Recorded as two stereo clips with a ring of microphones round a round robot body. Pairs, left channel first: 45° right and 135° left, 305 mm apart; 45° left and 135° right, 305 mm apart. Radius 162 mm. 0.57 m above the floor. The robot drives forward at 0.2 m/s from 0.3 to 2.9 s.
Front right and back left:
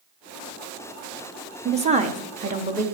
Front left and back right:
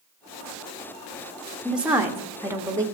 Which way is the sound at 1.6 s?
140° left.